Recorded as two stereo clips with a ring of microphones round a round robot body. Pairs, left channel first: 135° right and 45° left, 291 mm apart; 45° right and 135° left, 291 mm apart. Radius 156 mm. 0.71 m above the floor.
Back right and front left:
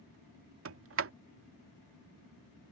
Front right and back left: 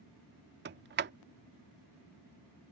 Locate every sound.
0.7 s a sliding door: 85° left